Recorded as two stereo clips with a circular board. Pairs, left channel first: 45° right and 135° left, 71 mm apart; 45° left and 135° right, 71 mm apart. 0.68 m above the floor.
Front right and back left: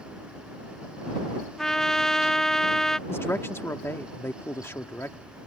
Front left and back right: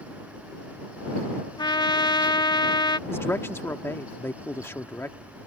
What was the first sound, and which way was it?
A trumpet, 40° left.